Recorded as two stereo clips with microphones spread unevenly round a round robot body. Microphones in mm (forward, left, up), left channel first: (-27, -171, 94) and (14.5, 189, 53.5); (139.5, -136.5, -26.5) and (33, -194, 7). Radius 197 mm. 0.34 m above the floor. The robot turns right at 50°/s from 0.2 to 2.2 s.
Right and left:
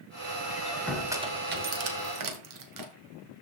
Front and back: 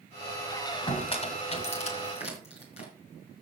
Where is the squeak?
25° right, 1.8 m; by 2.9 s 60° left, 1.8 m.